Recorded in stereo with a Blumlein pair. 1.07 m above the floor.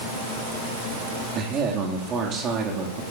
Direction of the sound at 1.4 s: 30° right.